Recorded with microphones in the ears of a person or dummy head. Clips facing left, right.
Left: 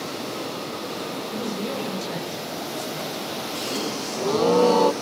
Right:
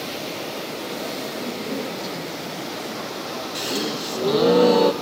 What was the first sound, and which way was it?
A woman speaking, 60° left (ahead or behind).